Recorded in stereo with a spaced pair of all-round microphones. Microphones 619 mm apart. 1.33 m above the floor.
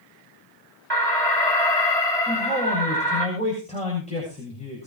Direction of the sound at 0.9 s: 40° right (ahead or behind).